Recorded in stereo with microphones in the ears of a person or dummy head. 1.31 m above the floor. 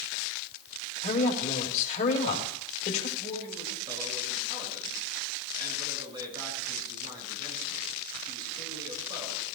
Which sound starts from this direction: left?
A woman speaking, at 1.0 s.